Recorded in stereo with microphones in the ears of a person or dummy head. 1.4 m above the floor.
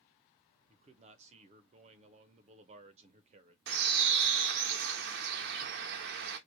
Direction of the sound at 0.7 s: 40° right (ahead or behind).